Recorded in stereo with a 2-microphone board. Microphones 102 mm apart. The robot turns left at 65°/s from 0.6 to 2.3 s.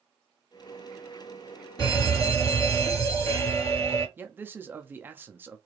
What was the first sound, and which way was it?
A fire alarm, 85° left.